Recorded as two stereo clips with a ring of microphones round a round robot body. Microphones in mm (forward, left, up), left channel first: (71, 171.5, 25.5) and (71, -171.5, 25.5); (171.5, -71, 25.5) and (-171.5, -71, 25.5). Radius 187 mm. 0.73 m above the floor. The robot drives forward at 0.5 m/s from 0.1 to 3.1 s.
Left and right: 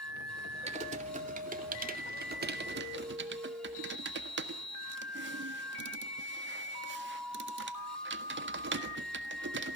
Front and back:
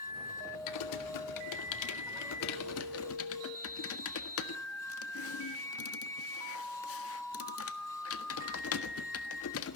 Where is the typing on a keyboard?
20° right, 2.5 m; by 9.8 s 40° right, 1.6 m.